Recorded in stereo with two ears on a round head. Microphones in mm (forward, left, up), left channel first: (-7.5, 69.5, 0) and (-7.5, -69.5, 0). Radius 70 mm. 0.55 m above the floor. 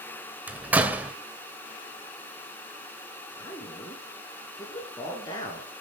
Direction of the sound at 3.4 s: 25° left (ahead or behind).